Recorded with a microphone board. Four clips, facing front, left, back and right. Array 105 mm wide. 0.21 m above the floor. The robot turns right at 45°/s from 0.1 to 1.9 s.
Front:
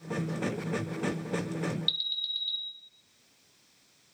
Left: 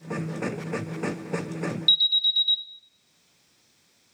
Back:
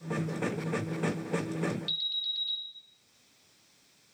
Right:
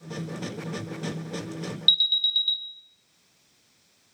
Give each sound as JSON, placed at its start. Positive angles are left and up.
{"t": 1.9, "sound": "an alarm", "azimuth_deg": 100, "distance_m": 1.3}